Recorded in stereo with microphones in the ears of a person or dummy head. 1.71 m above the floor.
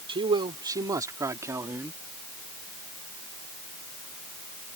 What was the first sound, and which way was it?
A man speaking, 30° right (ahead or behind).